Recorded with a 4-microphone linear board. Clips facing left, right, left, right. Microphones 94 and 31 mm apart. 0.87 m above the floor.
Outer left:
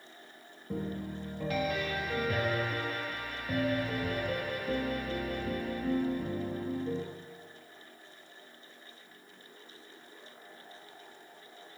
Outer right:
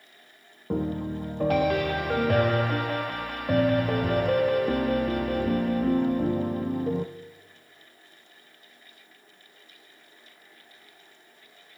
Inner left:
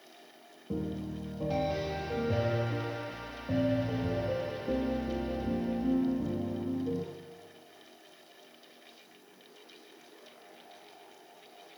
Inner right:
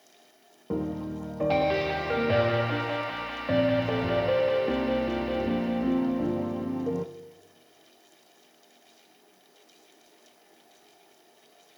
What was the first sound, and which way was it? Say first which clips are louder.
A piano: outer right 9 dB, inner right 5 dB; 60° right (ahead or behind).